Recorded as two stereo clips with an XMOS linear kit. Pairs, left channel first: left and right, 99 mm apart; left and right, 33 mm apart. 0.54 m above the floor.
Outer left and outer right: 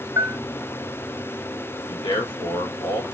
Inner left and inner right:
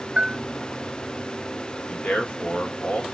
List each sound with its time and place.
0.2 s a bell: 30° right (ahead or behind), 0.6 m
1.9 s a man speaking: 55° left (ahead or behind), 1.1 m